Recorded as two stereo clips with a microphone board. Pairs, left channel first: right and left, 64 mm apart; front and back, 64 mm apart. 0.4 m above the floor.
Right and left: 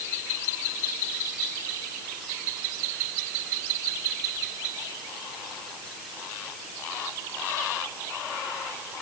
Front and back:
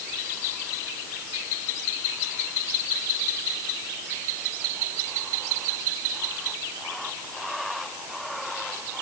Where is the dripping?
I don't hear dripping.